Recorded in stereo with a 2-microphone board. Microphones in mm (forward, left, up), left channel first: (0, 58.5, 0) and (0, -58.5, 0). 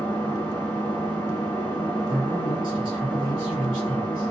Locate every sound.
0.0 s an engine running: 20° left (ahead or behind), 0.7 m
2.1 s a man speaking: 40° right (ahead or behind), 1.1 m